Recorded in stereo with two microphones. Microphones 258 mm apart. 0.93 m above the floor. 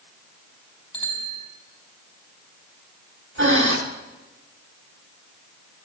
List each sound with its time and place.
0.9 s a bicycle bell: 20° left (ahead or behind), 4.5 m
3.4 s breathing: 50° right (ahead or behind), 2.5 m